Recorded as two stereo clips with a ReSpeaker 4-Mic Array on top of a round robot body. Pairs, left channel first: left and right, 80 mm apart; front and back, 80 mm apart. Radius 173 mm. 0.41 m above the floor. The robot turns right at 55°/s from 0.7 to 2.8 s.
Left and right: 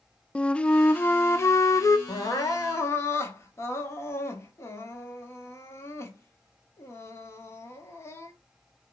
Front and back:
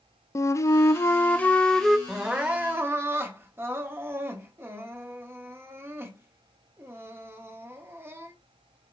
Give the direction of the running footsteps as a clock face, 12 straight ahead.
No running footsteps in this recording.